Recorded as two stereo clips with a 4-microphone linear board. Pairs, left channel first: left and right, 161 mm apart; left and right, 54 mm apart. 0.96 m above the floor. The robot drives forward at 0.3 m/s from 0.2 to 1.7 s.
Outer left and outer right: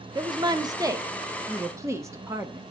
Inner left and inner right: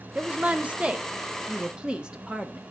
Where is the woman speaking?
30° right (ahead or behind), 0.8 m; by 2.6 s 20° right (ahead or behind), 1.2 m.